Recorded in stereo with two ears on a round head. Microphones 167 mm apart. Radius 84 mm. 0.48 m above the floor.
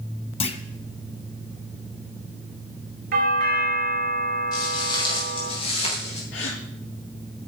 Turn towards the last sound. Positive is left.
turn(degrees=65)  # may be behind; listen again after turning